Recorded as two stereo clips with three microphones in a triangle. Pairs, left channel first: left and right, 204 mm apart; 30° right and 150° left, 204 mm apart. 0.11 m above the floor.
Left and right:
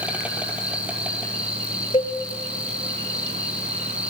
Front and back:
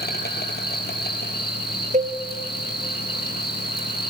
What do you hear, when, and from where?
0.0 s an insect: 5° right, 2.5 m
1.9 s a cowbell: 135° left, 1.3 m